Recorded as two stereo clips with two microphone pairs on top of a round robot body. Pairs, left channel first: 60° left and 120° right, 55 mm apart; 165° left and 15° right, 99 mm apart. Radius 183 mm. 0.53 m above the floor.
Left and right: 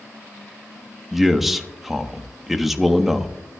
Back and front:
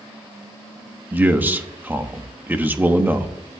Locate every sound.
1.1 s a man speaking: 55° right, 1.2 m